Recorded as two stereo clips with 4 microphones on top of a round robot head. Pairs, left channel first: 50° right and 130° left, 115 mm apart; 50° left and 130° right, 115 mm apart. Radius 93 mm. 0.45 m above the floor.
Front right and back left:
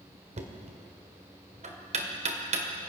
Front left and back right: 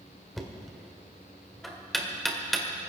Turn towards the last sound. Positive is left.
turn(degrees=140)